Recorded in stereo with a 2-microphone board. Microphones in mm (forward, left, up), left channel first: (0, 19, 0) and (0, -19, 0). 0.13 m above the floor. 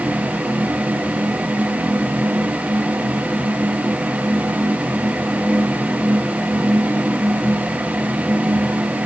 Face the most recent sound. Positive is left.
No sound to turn to.